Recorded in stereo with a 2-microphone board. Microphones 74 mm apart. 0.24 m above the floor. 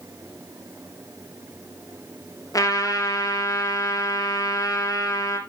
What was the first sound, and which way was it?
A trumpet, 50° left (ahead or behind).